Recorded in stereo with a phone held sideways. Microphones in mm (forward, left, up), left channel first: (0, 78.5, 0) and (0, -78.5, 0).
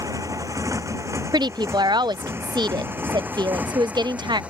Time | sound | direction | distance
0.0 | a motorcycle | 20° right (ahead or behind) | ?
1.3 | a woman speaking | 25° right (ahead or behind) | ?